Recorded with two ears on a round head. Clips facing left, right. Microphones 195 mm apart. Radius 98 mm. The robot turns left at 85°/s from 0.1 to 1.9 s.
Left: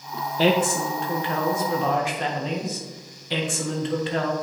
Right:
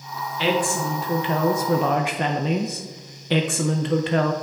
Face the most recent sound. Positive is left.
turn(degrees=-80)